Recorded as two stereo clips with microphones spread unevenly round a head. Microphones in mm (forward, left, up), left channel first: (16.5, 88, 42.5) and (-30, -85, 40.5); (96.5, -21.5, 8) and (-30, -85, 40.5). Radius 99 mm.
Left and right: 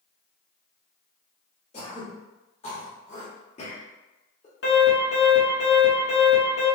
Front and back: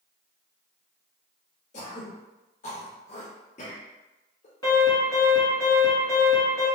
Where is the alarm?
90° left, 1.6 m.